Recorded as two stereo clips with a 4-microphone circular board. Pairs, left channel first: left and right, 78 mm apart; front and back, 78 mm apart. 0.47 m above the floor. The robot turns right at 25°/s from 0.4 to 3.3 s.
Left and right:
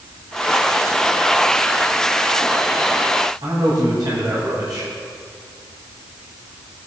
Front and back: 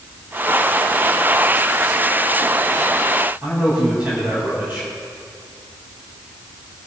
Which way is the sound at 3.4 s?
110° right.